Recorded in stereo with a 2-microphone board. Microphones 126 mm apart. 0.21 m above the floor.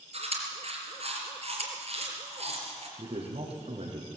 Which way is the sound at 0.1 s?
60° right (ahead or behind).